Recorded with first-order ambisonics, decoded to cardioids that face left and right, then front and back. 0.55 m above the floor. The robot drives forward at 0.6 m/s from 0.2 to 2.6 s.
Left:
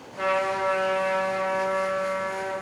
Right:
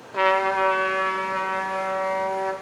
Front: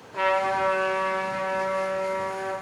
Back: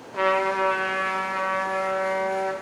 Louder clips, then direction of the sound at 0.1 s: Right 5 dB, back 1 dB; 100° right.